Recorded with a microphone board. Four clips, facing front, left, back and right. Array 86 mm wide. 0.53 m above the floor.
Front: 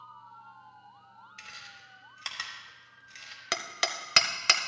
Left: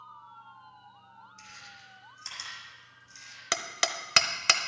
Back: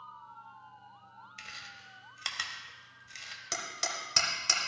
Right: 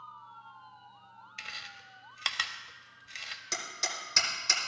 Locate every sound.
1.4 s chewing: 95° right, 1.1 m
3.5 s hammering: 55° left, 0.8 m